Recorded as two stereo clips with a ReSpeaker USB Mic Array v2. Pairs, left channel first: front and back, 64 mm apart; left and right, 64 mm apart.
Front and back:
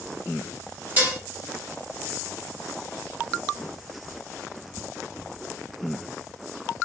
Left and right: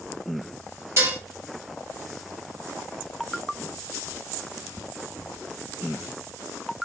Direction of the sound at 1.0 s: 125° right.